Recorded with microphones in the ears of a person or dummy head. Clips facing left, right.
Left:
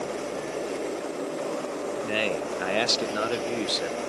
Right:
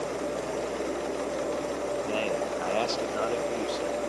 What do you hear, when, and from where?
2.0 s a man speaking: 20° left (ahead or behind), 0.6 m